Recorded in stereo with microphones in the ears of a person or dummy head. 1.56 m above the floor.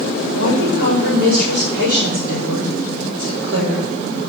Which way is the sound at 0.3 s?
85° right.